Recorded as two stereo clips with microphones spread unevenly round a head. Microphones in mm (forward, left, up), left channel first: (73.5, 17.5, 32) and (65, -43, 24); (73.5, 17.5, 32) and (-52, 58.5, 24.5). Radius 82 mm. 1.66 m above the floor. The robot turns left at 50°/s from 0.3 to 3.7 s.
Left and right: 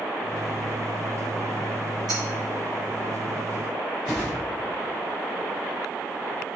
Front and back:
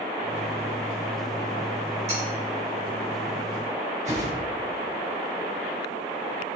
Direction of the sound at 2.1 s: 145° right.